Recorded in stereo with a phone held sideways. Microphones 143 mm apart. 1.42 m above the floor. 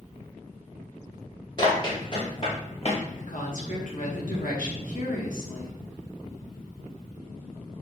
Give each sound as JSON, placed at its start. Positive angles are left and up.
{"t": 1.6, "sound": "running footsteps", "side_deg": 30, "distance_m": 1.6}
{"t": 3.2, "sound": "a woman speaking", "side_deg": 65, "distance_m": 0.9}